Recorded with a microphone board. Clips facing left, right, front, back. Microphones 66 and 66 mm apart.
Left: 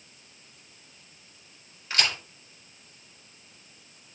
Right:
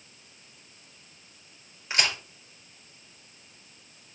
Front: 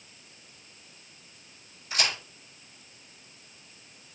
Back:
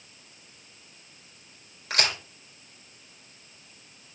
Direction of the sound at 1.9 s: 160° right.